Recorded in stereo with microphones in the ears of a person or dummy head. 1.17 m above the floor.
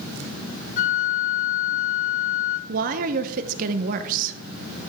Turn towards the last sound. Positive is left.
turn(degrees=-45)  # may be behind; listen again after turning